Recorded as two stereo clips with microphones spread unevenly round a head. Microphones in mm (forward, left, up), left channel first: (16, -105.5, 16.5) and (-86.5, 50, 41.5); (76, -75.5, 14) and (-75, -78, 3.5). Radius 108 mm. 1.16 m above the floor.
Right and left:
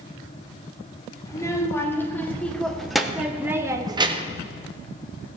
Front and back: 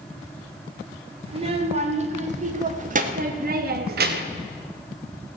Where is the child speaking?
130° right, 3 m; by 4.5 s 175° left, 1.3 m.